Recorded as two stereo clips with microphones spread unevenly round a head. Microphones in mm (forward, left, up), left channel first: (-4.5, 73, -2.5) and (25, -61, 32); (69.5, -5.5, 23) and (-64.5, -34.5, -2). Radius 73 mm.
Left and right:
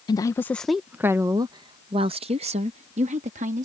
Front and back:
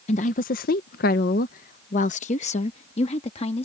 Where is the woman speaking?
55° left; by 3.6 s 40° right.